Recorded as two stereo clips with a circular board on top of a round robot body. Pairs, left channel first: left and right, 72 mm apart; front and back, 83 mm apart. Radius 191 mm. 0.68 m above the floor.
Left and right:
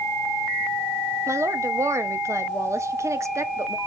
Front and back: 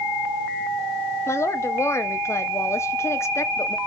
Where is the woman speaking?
50° right, 1.6 m.